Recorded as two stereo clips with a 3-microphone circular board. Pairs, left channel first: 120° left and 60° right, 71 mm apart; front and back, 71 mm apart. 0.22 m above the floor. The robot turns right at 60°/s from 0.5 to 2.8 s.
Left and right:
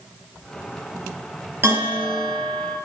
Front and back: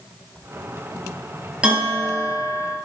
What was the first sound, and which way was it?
A bell, 110° right.